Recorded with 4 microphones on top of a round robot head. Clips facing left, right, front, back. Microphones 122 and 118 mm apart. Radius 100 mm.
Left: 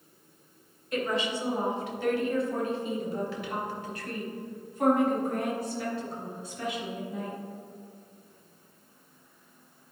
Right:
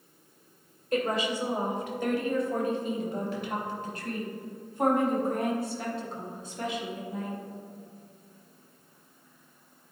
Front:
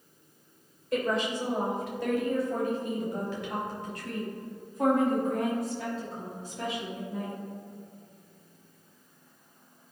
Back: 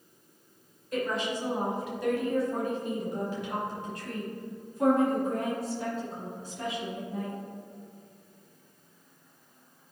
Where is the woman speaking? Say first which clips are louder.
Right 2 dB, front 2 dB; 40° right, 2.5 m; by 7.3 s 50° right, 6.5 m.